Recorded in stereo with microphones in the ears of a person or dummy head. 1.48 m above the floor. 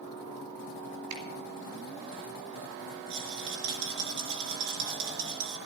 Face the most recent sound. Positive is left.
turn(degrees=-70)  # may be behind; listen again after turning